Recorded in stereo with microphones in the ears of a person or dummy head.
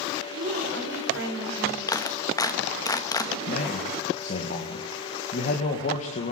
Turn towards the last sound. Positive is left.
turn(degrees=45)  # may be behind; listen again after turning